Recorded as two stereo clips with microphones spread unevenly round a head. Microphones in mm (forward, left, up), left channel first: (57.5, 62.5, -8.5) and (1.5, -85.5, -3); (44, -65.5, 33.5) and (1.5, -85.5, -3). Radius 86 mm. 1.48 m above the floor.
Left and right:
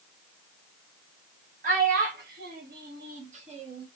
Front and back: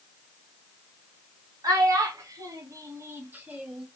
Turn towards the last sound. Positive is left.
turn(degrees=-55)